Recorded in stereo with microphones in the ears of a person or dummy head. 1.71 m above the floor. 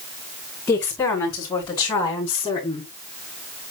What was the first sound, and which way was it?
A woman speaking, 10° left (ahead or behind).